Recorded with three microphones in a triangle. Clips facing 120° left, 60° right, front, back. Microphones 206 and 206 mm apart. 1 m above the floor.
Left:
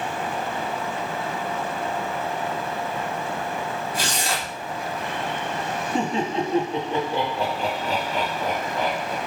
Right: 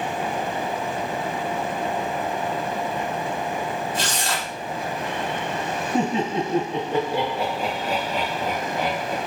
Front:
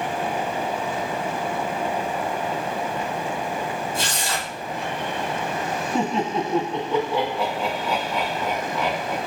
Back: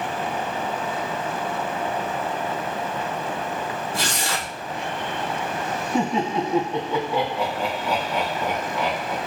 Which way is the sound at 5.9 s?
100° right.